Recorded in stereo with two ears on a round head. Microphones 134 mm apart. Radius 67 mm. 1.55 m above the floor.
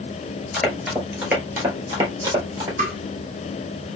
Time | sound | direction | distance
0.5 | running footsteps | 10° left (ahead or behind) | 1.6 m
2.8 | tapping | 55° right (ahead or behind) | 2 m